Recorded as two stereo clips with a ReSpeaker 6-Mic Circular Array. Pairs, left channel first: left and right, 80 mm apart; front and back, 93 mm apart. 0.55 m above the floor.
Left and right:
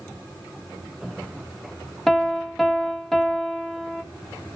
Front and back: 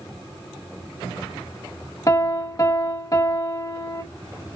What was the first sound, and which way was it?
A piano, 5° left.